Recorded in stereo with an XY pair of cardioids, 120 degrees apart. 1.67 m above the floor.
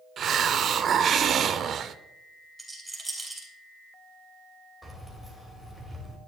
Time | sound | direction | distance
0.2 | a hiss | 50° right | 0.6 m
2.6 | a rattle | 5° right | 4 m
4.8 | keys jangling | 5° left | 3 m